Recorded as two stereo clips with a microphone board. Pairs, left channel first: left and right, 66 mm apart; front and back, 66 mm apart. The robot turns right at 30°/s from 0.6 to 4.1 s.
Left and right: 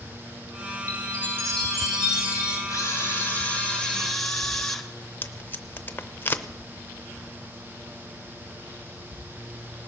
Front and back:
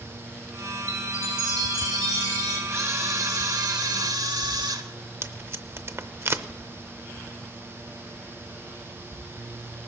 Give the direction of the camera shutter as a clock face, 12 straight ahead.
8 o'clock.